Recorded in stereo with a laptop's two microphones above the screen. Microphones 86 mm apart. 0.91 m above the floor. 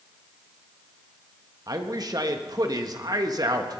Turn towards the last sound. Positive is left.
turn(degrees=-45)  # may be behind; listen again after turning